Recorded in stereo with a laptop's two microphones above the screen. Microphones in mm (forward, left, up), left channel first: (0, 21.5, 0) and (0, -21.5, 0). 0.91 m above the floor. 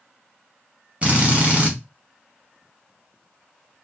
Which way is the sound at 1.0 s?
30° right (ahead or behind).